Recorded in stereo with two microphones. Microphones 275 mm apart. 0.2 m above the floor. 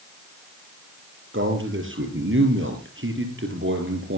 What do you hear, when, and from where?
1.3 s a man speaking: 45° right (ahead or behind), 4 m